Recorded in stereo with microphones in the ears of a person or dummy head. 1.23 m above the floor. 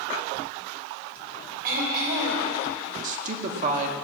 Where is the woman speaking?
50° right (ahead or behind), 1.9 m.